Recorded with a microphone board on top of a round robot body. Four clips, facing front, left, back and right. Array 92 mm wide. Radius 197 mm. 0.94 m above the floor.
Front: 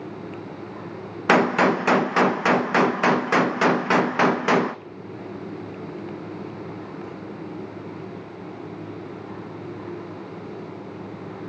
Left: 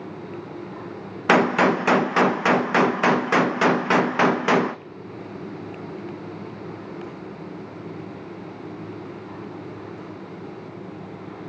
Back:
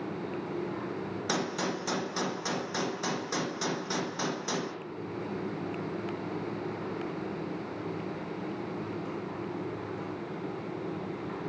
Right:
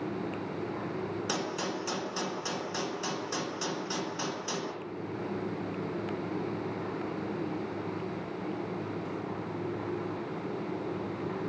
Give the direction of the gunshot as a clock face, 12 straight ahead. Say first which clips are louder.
Left 22 dB, front 16 dB; 10 o'clock.